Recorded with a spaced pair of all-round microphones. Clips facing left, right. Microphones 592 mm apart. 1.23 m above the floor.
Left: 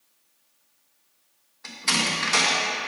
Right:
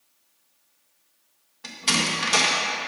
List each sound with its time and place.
1.6 s a door slam: 55° right (ahead or behind), 0.9 m